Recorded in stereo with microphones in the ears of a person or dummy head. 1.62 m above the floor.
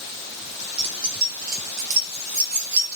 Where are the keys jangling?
35° right (ahead or behind), 1.7 m; by 3.0 s 55° right (ahead or behind), 2.5 m.